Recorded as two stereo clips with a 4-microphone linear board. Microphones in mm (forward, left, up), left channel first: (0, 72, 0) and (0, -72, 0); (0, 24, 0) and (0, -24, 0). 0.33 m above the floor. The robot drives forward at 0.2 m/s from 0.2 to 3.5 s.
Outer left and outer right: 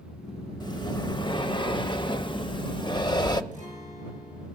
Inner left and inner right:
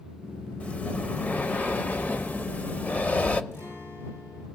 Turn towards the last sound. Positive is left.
turn(degrees=65)  # may be behind; listen again after turning